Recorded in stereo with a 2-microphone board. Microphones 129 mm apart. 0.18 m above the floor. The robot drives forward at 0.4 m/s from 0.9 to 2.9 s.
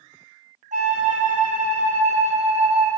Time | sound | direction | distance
0.7 | a flute | 75° right (ahead or behind) | 0.7 m